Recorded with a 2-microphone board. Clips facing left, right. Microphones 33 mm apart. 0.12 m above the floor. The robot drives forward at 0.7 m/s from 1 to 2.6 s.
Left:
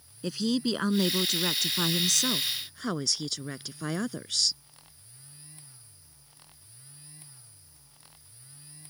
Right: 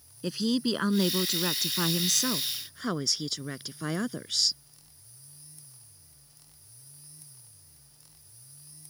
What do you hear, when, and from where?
0.2 s a woman speaking: 5° right (ahead or behind)